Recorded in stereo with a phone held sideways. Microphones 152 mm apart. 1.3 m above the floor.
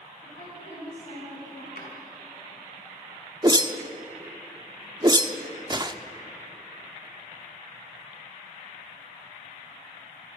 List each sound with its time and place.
0.2 s a woman speaking: 55° left (ahead or behind), 9.5 m
1.8 s a drawer: 80° left, 4.5 m
3.4 s a whoosh: 30° right (ahead or behind), 0.9 m